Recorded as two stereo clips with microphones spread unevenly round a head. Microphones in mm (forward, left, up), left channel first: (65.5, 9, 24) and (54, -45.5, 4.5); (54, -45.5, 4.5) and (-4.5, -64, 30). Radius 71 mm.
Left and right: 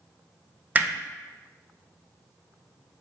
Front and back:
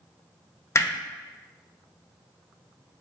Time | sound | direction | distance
0.8 | hammering | 35° right | 0.6 m